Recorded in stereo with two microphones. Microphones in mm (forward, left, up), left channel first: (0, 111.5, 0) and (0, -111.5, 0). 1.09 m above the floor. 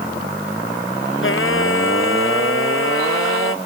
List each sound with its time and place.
1.2 s singing: 65° left (ahead or behind)